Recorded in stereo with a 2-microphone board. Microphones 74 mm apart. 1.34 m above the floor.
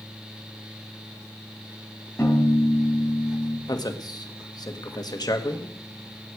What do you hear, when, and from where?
2.2 s a piano: 30° left (ahead or behind), 5 m
3.7 s a man speaking: 60° left (ahead or behind), 1.6 m